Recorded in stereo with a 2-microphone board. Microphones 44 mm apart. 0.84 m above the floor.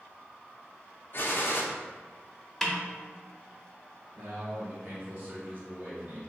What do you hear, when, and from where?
1.1 s a gunshot: 50° left (ahead or behind), 0.5 m
2.6 s a snare drum: 5° left (ahead or behind), 0.7 m
4.2 s a man speaking: 40° right (ahead or behind), 1.5 m